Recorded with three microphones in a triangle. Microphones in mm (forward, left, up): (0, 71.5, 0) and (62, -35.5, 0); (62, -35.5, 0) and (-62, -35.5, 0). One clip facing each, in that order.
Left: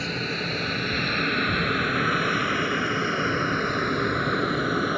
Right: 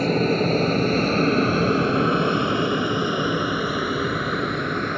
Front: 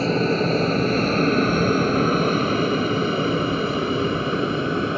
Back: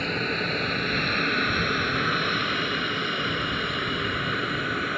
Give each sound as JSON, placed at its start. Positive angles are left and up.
{"t": 0.0, "sound": "an aircraft", "azimuth_deg": -40}